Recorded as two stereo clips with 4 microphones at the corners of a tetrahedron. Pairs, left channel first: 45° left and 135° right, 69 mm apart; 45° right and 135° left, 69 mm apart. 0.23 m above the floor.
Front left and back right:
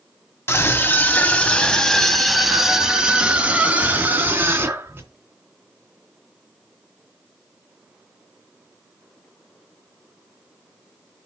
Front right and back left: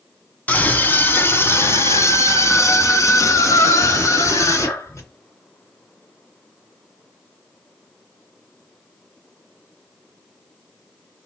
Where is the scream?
10° left, 2.0 m; by 5.1 s 80° right, 3 m.